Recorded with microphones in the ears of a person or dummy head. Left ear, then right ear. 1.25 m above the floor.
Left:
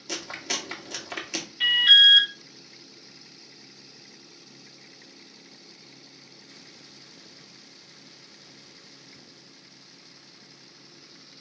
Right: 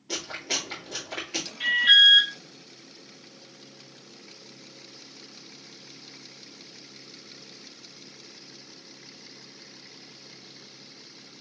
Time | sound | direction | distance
0.1 | chewing | 85° left | 1.9 m
1.6 | an alarm | 25° left (ahead or behind) | 1.7 m